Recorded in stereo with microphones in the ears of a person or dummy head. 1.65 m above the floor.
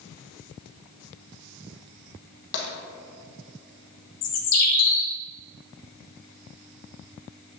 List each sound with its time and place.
2.5 s tapping: 60° left (ahead or behind), 1.4 m
4.2 s a bird: 80° left, 0.9 m